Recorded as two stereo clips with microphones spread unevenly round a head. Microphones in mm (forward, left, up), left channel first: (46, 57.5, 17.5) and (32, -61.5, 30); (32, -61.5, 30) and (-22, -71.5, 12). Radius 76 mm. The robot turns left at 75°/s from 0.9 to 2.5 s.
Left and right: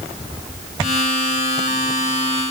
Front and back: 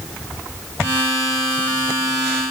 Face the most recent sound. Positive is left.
No sound to turn to.